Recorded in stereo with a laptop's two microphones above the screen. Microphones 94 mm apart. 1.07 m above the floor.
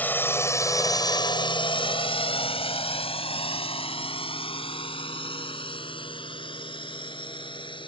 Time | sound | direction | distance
0.0 | a drone | 20° left (ahead or behind) | ?